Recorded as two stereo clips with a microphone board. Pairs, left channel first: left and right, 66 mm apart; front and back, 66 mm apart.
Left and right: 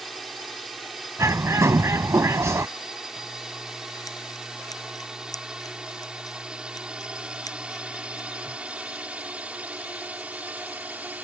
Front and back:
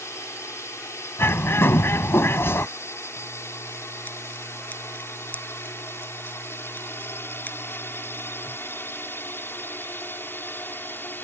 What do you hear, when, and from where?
0.0 s a drone: straight ahead; by 11.2 s 40° right
1.2 s a bird: 50° right
3.2 s scissors: 65° left